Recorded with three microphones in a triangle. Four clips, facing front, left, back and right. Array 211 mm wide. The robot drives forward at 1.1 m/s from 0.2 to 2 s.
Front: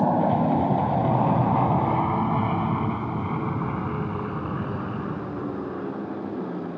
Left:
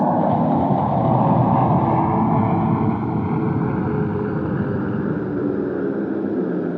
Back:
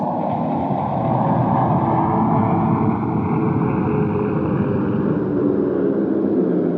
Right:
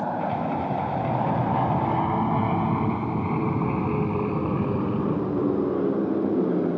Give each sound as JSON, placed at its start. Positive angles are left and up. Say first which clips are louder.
{"t": 0.0, "sound": "an aircraft", "louder": "left 9 dB, even", "azimuth_deg": 95}